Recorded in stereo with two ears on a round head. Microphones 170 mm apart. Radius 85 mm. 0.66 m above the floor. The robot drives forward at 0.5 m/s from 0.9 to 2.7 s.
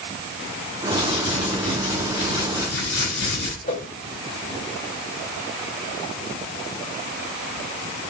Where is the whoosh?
45° left (ahead or behind), 6 m.